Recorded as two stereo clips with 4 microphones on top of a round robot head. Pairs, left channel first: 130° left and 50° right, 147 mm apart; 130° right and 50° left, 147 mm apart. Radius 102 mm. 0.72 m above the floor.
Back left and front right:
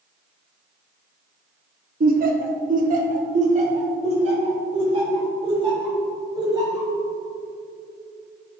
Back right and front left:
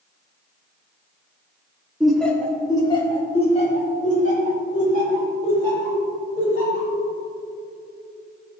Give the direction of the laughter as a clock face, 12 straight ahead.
1 o'clock.